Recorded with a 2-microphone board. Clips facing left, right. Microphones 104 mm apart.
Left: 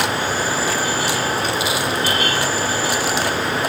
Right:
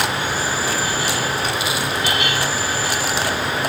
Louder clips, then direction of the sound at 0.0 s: Left 1 dB; centre (ahead or behind).